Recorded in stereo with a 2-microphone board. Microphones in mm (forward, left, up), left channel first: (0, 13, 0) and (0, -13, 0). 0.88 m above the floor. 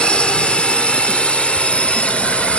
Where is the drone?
50° left (ahead or behind); by 2.6 s 60° left (ahead or behind).